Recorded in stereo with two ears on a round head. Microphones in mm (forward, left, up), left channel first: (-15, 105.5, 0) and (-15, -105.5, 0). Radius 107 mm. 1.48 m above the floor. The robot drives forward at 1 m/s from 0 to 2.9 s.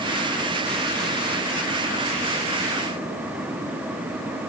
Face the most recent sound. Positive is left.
No sound to turn to.